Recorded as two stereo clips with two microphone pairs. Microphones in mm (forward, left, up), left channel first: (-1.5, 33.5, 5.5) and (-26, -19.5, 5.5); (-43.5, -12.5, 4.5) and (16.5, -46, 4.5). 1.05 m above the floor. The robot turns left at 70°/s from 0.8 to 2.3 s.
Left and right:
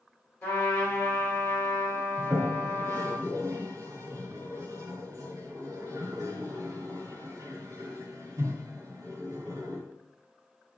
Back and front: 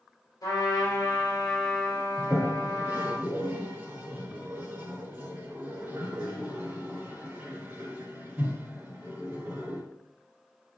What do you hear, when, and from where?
0.4 s a trumpet: 115° left, 5 m; by 3.2 s 10° left, 5 m
2.2 s a toilet flushing: 80° right, 3 m; by 9.8 s 90° right, 3 m